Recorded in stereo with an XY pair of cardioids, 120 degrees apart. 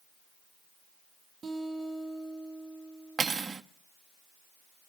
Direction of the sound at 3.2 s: 30° right.